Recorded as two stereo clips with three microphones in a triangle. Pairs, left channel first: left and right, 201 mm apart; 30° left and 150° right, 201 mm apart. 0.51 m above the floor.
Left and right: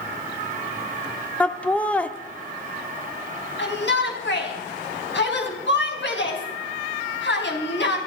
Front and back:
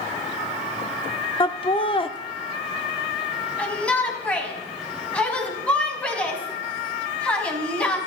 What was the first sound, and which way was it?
Laughter, 15° left.